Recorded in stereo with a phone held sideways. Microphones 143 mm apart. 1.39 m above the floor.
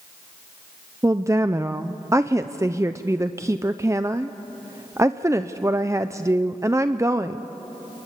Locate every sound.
1.0 s a woman speaking: 20° right (ahead or behind), 0.5 m